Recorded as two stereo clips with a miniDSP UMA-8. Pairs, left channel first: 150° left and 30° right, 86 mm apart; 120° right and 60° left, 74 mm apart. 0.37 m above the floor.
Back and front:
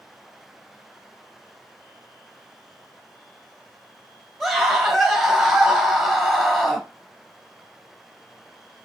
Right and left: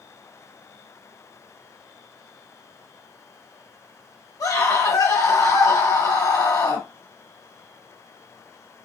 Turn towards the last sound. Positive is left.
turn(degrees=-120)